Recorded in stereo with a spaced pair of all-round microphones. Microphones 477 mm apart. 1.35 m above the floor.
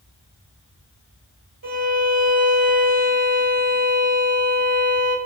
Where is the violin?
45° right (ahead or behind), 0.9 m.